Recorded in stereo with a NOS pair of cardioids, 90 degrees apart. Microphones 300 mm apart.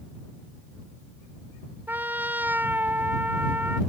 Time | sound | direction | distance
1.9 | a trumpet | 5° right | ?